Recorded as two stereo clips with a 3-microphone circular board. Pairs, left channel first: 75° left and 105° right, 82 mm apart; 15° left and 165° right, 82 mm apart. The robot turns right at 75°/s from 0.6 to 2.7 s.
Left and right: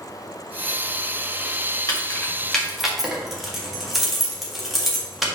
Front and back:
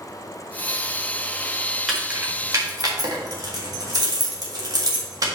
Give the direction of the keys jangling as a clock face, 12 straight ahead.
8 o'clock.